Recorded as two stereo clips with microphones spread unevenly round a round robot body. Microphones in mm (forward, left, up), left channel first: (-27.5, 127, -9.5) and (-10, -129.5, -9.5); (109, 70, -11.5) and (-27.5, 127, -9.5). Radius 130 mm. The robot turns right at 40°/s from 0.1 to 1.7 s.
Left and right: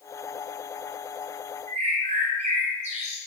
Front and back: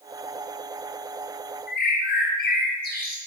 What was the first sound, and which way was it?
A bird, 20° right.